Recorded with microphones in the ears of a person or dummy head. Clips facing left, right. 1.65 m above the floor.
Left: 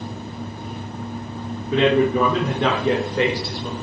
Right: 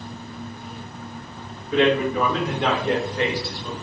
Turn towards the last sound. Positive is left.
turn(degrees=45)  # may be behind; listen again after turning